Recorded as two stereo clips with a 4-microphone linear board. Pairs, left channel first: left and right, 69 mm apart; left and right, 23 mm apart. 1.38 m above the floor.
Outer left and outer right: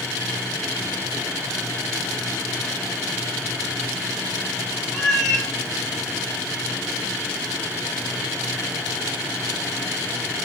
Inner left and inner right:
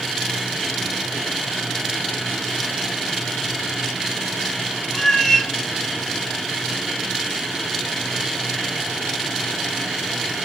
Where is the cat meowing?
5° left (ahead or behind), 0.7 m.